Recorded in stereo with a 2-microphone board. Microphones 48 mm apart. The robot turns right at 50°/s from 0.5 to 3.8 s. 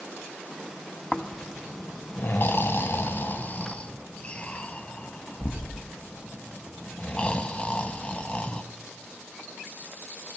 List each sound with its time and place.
1.1 s snoring: 10° left (ahead or behind), 0.6 m; by 8.6 s 25° left (ahead or behind), 0.6 m